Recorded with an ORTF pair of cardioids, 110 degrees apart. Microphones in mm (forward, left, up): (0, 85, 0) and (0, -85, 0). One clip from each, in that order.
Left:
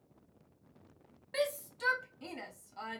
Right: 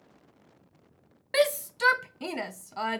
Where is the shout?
55° right, 0.5 m.